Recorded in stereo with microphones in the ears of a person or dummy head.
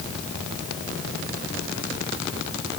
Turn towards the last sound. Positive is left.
No sound to turn to.